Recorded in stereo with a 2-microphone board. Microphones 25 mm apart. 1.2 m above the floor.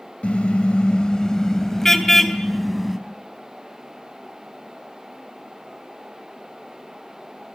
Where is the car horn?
60° left (ahead or behind), 2.5 m; by 3.0 s centre (ahead or behind), 4 m.